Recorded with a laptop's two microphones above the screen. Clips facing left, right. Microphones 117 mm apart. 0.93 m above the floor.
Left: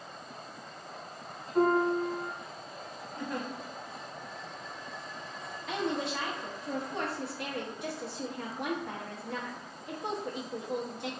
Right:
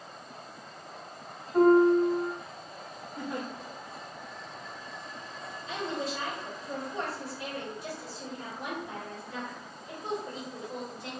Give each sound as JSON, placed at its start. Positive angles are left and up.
{"t": 1.5, "sound": "a piano", "side_deg": -55, "distance_m": 1.6}
{"t": 3.2, "sound": "a giggle", "side_deg": -10, "distance_m": 1.5}
{"t": 5.7, "sound": "a woman speaking", "side_deg": 70, "distance_m": 1.1}